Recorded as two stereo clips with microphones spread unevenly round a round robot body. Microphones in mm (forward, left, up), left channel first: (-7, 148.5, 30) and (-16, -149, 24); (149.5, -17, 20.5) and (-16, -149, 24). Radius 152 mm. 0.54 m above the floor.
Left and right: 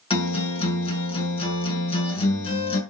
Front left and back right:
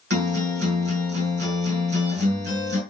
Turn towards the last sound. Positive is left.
turn(degrees=160)